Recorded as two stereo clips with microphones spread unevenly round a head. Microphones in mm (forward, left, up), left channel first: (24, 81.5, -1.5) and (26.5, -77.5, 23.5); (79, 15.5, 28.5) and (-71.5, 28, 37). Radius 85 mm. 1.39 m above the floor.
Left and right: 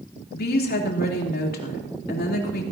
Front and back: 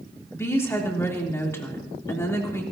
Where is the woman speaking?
70° left, 3.5 m.